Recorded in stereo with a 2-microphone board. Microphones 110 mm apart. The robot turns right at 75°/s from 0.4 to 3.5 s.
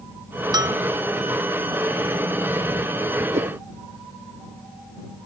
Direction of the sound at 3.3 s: 75° right (ahead or behind).